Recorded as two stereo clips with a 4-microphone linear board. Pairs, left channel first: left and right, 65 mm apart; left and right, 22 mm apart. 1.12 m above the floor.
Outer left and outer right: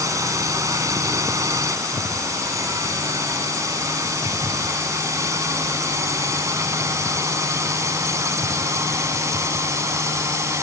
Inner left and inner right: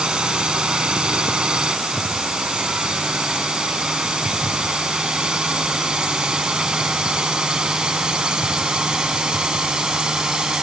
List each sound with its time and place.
0.0 s a drone: 55° right (ahead or behind); by 10.6 s 50° right (ahead or behind)